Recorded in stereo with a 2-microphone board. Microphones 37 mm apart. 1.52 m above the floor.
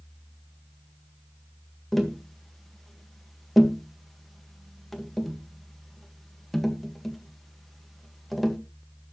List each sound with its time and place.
1.9 s tapping: centre (ahead or behind), 1.6 m